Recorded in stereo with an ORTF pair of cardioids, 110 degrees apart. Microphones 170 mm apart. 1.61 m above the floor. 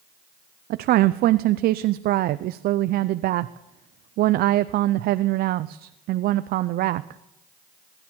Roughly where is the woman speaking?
Ahead right.